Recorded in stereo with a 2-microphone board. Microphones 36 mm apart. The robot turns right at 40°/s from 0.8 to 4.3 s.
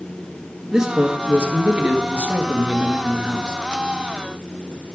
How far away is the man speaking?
About 1.7 m.